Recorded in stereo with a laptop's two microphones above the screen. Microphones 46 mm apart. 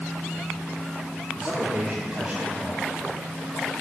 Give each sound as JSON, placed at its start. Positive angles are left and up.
{"t": 1.3, "sound": "a man speaking", "side_deg": -35, "distance_m": 2.5}